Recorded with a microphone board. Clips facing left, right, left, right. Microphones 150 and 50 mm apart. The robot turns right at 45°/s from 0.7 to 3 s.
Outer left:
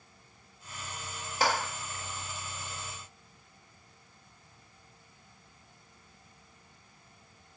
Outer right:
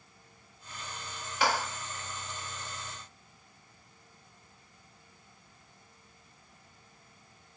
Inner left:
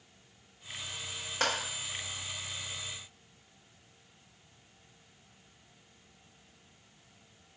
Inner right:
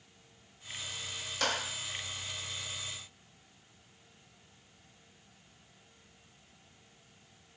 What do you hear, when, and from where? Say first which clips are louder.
1.4 s a clap: even, inner left 2 dB; 35° left (ahead or behind), 1.3 m; by 1.5 s 45° left (ahead or behind), 1.3 m